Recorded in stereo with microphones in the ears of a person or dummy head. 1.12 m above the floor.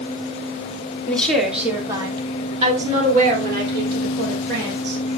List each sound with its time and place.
1.1 s a woman speaking: 5° left (ahead or behind), 2.5 m; by 5.0 s 70° right (ahead or behind), 5 m